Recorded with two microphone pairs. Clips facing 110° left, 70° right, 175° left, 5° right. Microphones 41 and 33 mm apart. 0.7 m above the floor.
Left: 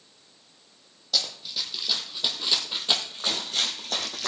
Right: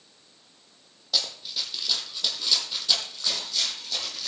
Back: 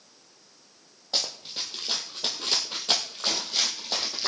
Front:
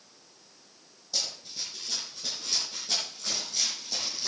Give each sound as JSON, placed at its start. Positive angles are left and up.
{"t": 1.1, "sound": "running footsteps", "azimuth_deg": -155, "distance_m": 1.9}